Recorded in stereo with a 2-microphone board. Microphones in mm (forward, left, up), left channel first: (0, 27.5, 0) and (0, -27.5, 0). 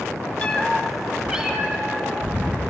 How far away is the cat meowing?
About 0.6 m.